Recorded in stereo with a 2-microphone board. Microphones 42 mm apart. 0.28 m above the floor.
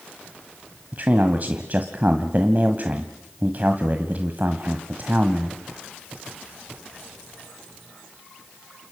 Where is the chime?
I don't hear a chime.